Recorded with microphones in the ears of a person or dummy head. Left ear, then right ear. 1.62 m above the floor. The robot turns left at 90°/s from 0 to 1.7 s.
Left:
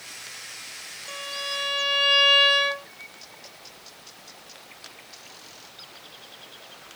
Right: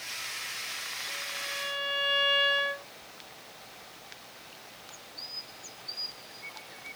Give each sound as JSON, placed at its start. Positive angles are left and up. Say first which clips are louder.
{"t": 1.1, "sound": "a violin", "louder": "left 9 dB", "azimuth_deg": 90}